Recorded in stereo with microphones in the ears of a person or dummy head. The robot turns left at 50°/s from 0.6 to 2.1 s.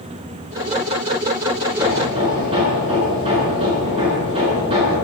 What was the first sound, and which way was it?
Hammering, 10° right (ahead or behind).